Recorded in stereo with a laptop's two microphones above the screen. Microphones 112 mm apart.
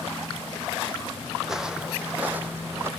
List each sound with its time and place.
1.4 s footsteps: centre (ahead or behind), 2 m; by 2.9 s 20° right (ahead or behind), 2.5 m